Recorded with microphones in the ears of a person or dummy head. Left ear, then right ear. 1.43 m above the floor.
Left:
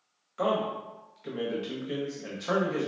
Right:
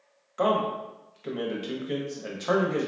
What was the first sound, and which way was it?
A man speaking, 15° right (ahead or behind).